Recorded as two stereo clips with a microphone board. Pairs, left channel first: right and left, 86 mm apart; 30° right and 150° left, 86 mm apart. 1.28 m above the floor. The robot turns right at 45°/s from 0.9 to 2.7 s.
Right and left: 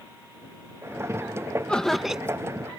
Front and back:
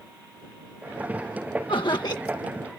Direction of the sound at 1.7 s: 15° right.